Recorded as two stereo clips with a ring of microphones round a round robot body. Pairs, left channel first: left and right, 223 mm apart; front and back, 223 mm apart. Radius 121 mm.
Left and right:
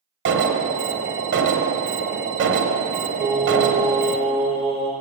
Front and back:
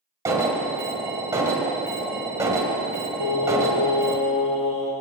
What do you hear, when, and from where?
0.2 s an alarm: 105° right, 1.3 m
3.2 s singing: 25° right, 4 m